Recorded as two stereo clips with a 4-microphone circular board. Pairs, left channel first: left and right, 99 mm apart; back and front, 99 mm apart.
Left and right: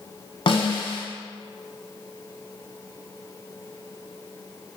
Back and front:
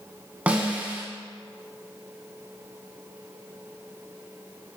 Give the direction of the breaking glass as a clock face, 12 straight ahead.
No breaking glass in this recording.